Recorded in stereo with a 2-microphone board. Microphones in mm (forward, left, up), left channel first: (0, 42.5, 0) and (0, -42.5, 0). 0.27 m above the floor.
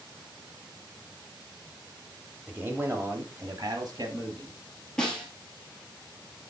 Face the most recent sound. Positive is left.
turn(degrees=10)  # may be behind; listen again after turning